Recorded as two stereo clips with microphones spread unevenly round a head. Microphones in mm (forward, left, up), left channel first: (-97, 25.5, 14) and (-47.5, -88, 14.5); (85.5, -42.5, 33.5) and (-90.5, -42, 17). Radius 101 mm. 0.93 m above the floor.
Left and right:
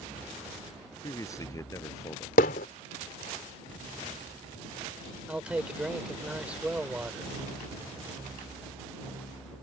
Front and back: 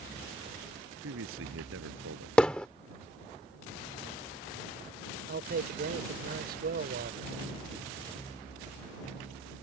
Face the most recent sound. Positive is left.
turn(degrees=-145)